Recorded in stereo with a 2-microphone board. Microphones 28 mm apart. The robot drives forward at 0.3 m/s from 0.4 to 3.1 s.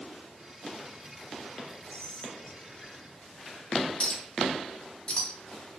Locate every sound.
1.9 s whispering: 40° left (ahead or behind), 1.2 m; by 3.9 s 35° left (ahead or behind), 1.2 m
4.0 s a clink: 45° left (ahead or behind), 0.9 m